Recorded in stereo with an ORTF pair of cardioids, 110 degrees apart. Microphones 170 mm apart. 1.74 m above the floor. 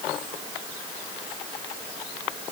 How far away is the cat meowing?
I don't hear a cat meowing.